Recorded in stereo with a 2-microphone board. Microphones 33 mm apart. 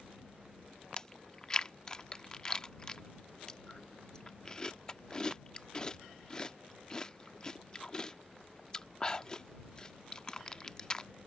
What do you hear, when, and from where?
1.0 s chewing: 20° left (ahead or behind)